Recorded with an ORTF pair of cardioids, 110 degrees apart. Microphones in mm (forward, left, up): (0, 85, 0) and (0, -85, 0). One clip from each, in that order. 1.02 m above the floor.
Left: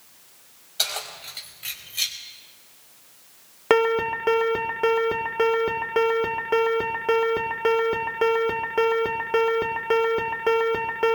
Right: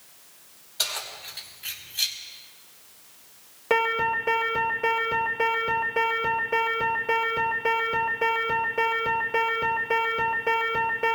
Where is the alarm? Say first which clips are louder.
Left 3 dB; 50° left, 2 m.